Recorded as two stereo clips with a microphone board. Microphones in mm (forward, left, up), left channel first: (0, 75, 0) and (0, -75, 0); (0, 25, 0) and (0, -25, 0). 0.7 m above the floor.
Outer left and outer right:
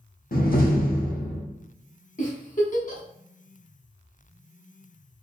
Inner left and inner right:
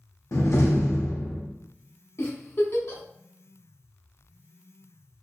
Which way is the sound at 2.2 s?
65° left (ahead or behind).